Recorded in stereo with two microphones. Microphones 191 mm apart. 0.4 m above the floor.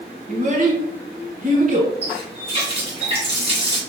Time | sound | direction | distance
0.3 | a child speaking | 45° right (ahead or behind) | 1.7 m
2.0 | a running tap | 30° right (ahead or behind) | 2.5 m